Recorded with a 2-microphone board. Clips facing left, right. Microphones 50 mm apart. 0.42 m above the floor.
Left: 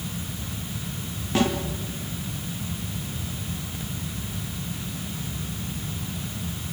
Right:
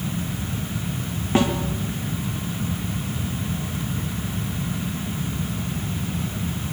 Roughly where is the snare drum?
Right.